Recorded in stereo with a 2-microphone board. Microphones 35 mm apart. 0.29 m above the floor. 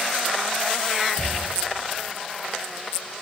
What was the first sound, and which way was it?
A cupboard door, 80° left.